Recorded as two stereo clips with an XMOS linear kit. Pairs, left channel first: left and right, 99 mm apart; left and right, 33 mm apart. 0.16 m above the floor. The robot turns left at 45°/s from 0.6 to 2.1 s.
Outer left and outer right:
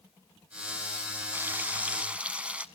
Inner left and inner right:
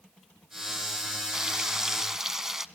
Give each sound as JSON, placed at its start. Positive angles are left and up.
{"t": 1.3, "sound": "frying", "side_deg": -20, "distance_m": 1.0}